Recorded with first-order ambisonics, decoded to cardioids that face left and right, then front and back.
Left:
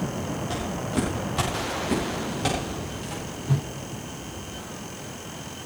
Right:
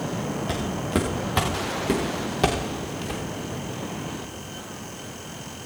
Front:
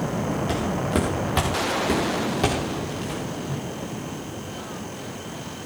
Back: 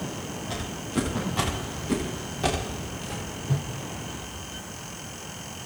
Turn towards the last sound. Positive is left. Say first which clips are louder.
# left 2 dB, front 1 dB
turn(degrees=110)